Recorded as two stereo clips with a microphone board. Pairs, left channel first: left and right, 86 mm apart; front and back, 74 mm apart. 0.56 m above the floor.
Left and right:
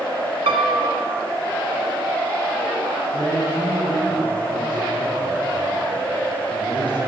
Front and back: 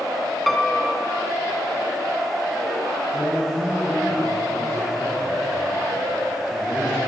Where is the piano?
90° right, 0.7 m.